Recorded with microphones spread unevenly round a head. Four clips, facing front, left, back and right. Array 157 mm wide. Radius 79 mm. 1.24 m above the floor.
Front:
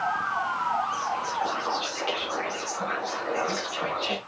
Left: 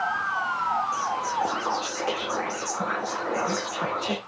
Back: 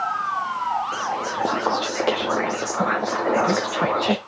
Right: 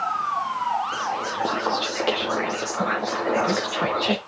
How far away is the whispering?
About 0.9 m.